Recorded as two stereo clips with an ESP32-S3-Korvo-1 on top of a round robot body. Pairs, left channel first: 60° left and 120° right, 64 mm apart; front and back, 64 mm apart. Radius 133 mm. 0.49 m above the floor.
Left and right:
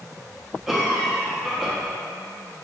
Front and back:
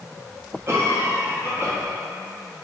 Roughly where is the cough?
Behind left.